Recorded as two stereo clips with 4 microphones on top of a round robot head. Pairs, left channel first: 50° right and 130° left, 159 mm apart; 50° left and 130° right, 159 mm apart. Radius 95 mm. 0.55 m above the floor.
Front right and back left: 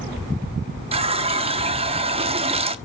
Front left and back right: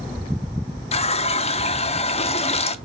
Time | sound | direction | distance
0.9 | a running tap | 90° left | 0.7 m